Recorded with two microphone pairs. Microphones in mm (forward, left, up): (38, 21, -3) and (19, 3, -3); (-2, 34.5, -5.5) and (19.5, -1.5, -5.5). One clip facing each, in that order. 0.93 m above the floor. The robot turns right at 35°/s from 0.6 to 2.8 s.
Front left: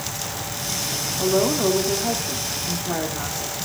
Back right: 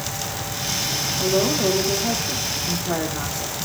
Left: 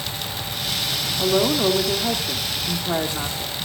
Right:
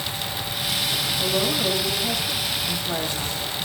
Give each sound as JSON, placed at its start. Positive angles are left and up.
{"t": 1.2, "sound": "a woman speaking", "azimuth_deg": 95, "distance_m": 2.5}